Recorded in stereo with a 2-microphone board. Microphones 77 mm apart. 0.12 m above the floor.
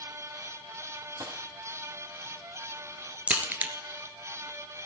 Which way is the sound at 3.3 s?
20° right (ahead or behind).